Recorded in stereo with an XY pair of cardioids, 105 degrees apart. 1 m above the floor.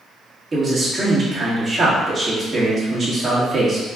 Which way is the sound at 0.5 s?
35° right.